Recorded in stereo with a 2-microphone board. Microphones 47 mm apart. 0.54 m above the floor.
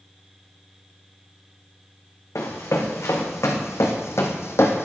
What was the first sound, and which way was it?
Running footsteps, 80° left.